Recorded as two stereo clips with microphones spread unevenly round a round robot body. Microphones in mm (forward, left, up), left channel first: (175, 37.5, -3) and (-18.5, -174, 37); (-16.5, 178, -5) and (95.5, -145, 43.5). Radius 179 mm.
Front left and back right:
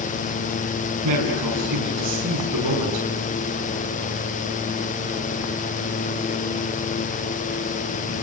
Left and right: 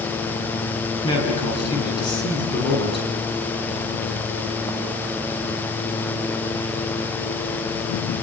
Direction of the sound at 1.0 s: 175° right.